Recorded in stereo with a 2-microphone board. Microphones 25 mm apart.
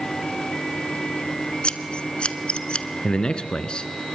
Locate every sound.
1.6 s scissors: 45° left (ahead or behind), 1.2 m
3.0 s a man speaking: 35° left (ahead or behind), 2 m